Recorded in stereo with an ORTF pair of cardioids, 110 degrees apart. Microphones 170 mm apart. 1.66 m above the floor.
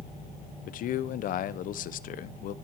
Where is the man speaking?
60° left, 0.9 m.